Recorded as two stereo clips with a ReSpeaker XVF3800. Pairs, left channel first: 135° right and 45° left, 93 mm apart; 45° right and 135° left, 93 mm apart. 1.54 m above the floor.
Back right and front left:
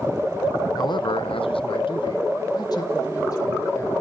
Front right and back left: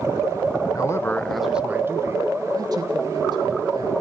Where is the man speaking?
95° right, 0.9 m; by 3.9 s 170° left, 2.5 m.